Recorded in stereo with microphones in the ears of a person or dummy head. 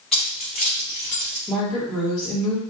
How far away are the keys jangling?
About 1.5 m.